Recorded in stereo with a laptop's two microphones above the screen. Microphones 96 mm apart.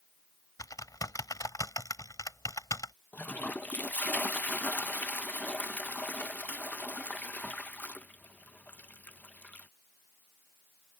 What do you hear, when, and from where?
0.6 s typing on a keyboard: 35° left (ahead or behind)
3.1 s a toilet flushing: 15° left (ahead or behind)